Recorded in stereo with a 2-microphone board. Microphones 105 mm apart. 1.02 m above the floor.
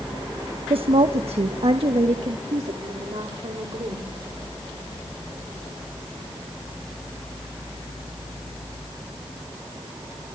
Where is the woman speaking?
60° right (ahead or behind), 0.8 m.